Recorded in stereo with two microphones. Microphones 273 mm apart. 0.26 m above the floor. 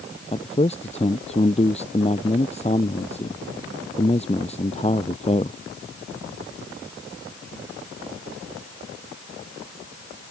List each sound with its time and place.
0.3 s a man speaking: 20° left (ahead or behind)